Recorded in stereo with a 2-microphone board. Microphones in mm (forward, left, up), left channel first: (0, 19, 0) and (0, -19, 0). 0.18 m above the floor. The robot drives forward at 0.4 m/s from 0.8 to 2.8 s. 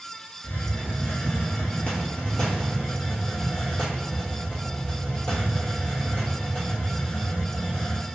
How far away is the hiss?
About 0.8 m.